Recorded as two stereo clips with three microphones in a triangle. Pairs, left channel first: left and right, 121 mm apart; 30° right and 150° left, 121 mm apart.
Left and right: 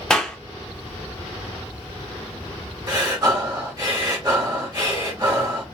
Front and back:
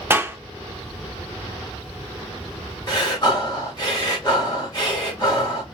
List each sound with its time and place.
0.1 s a clap: 160° left, 0.5 m
2.9 s breathing: 60° right, 1.2 m